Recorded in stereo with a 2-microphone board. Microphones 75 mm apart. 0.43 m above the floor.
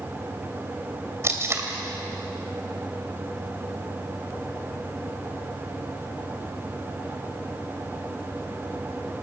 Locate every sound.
1.2 s tape being pulled: 35° right (ahead or behind), 2.5 m